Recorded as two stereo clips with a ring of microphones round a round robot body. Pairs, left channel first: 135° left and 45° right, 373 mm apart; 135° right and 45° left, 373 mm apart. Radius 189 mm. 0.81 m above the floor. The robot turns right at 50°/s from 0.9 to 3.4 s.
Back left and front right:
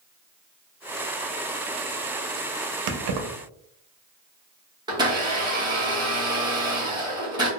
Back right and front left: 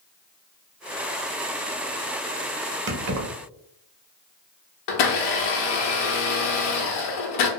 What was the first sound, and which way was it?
Keys jangling, 15° right.